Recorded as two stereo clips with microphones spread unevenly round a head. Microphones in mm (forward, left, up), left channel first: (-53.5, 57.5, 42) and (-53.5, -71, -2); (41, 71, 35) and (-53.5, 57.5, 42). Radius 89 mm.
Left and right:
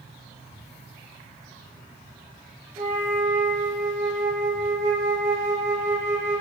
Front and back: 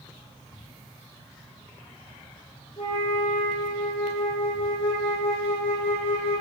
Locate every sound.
2.8 s a flute: 30° right, 1.0 m